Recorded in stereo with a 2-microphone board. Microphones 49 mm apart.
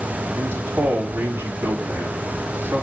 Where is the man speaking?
45° right (ahead or behind), 3.5 m.